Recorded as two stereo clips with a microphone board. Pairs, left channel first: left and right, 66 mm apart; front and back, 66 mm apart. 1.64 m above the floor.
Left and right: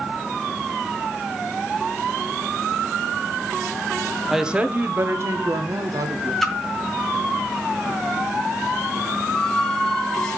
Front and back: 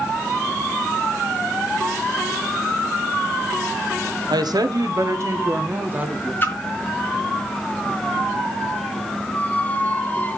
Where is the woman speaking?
175° right, 1.0 m; by 6.3 s 110° right, 1.9 m.